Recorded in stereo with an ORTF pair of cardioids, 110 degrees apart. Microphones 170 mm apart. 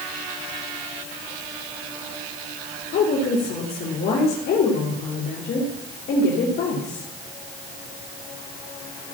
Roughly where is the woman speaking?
Ahead left.